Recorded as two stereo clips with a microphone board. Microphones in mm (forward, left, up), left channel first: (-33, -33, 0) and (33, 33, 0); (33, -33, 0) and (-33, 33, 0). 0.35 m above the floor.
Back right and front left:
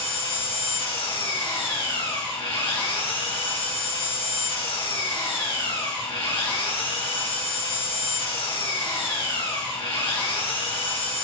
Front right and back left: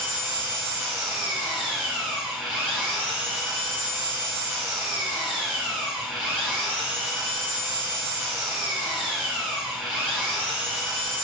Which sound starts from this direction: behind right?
An engine running, at 0.0 s.